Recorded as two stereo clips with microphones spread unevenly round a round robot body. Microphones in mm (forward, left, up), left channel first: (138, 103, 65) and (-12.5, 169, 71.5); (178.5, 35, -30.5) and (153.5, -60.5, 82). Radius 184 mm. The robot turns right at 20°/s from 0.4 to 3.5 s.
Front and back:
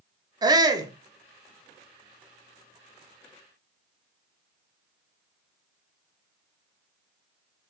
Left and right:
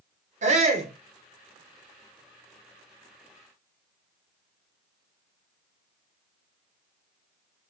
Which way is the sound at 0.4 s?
165° left.